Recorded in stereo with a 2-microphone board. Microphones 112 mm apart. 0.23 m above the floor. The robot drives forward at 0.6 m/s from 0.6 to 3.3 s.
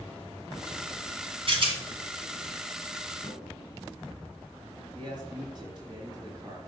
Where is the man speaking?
40° right (ahead or behind), 3 m.